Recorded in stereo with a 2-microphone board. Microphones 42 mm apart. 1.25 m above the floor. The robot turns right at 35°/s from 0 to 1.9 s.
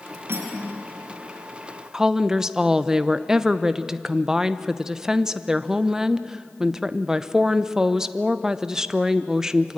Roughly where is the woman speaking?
Centre.